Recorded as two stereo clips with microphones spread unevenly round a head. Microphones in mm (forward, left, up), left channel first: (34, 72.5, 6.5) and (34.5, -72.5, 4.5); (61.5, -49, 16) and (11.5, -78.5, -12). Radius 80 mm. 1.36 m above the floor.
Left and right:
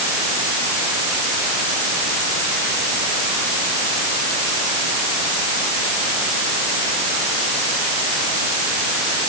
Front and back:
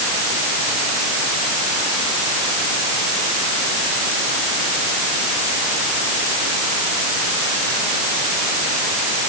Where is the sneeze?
I don't hear a sneeze.